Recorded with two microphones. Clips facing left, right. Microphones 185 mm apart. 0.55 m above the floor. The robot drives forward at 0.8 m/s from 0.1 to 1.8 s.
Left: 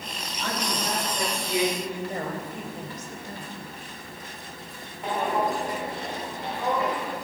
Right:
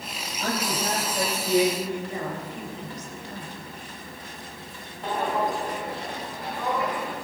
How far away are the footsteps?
About 6.5 m.